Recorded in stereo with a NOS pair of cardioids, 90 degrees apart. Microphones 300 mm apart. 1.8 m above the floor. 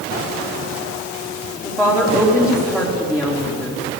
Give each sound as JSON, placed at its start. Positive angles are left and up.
{"t": 1.6, "sound": "a woman speaking", "azimuth_deg": -5, "distance_m": 5.0}